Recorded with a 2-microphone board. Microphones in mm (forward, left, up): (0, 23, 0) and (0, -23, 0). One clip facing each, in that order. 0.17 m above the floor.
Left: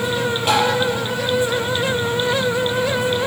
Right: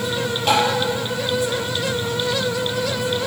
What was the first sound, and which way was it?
Tapping, 5° left (ahead or behind).